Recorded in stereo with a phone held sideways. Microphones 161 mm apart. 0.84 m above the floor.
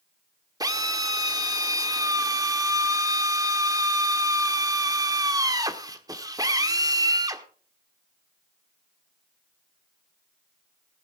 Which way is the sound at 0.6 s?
25° right (ahead or behind).